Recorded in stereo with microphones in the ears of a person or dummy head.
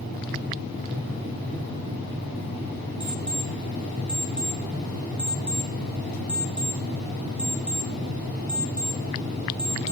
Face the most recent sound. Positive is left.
turn(degrees=-5)  # may be behind; listen again after turning